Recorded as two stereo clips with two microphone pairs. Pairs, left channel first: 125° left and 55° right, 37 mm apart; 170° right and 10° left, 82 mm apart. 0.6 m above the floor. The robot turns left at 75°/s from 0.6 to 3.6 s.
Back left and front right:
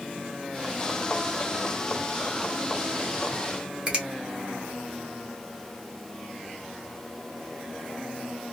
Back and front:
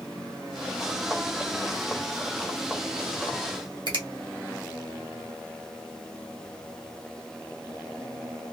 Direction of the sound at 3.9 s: 5° left.